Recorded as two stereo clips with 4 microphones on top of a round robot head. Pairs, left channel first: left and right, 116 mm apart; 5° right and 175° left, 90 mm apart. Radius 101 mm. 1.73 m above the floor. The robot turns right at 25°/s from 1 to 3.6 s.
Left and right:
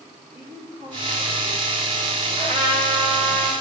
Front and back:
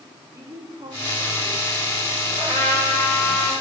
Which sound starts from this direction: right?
A trumpet, at 2.4 s.